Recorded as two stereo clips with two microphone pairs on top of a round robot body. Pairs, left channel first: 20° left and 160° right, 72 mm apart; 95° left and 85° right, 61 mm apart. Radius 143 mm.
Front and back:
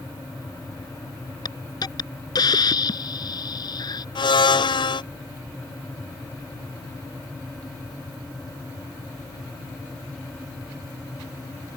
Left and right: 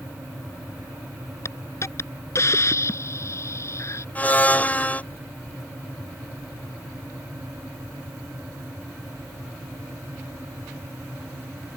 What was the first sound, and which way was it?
A hiss, 50° left.